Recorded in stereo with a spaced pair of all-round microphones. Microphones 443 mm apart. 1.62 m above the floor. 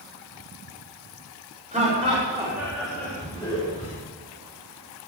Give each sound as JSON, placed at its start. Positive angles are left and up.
{"t": 1.7, "sound": "laughter", "side_deg": -15, "distance_m": 5.0}